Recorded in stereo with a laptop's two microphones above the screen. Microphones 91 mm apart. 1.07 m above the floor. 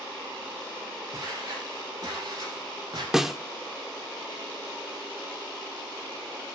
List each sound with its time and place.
1.1 s footsteps: 40° right (ahead or behind), 9.5 m; by 3.0 s 50° right (ahead or behind), 9 m
3.1 s a snare drum: 5° right (ahead or behind), 1.0 m